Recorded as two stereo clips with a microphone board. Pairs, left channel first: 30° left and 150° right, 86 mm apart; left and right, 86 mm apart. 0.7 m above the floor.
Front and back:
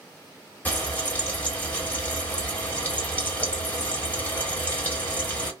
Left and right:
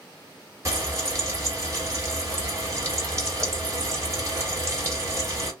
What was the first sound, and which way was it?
Frying, 40° right.